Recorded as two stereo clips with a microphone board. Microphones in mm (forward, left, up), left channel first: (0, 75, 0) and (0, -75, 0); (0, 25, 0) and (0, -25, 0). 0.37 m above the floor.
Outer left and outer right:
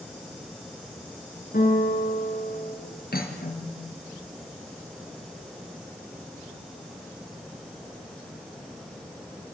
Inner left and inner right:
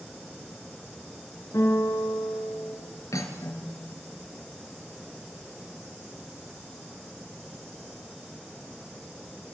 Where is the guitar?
70° left (ahead or behind), 6 m.